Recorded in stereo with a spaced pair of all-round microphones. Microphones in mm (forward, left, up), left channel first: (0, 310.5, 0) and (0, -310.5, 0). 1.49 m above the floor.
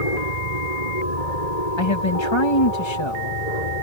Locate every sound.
0.0 s an aircraft: 75° left (ahead or behind)
1.8 s a man speaking: 40° left (ahead or behind)